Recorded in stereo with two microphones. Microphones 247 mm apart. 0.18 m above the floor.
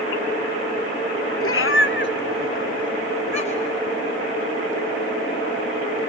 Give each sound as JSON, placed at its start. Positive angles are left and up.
{"t": 1.4, "sound": "a cat meowing", "side_deg": 60, "distance_m": 0.7}